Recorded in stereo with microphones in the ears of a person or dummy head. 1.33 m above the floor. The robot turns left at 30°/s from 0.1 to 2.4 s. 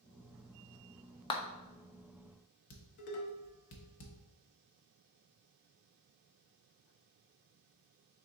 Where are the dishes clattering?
50° left (ahead or behind), 0.7 m.